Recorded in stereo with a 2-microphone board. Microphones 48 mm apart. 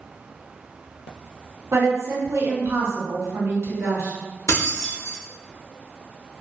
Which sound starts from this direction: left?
Keys jangling, at 4.5 s.